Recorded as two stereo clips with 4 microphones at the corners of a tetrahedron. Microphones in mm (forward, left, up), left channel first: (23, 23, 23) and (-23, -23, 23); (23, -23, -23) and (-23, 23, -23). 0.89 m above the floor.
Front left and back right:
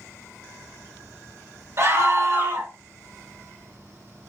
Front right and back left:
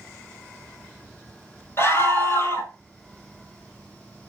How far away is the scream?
About 4.5 m.